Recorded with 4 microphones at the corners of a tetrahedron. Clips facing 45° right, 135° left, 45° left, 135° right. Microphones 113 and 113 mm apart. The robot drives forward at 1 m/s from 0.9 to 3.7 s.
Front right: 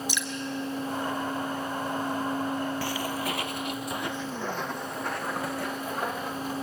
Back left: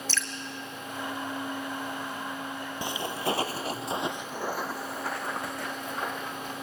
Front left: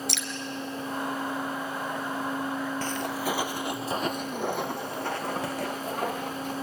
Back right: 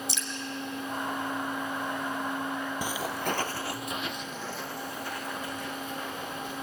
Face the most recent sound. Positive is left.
turn(degrees=40)